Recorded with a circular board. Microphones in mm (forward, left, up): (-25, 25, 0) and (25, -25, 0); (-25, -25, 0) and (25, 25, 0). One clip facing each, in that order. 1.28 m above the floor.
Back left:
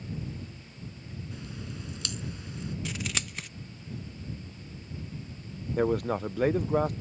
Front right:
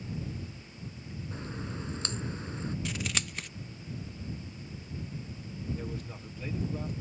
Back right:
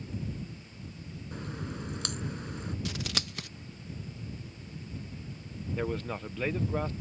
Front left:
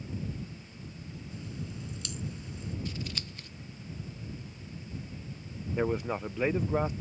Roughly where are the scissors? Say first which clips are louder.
Even, back right 3 dB; behind right.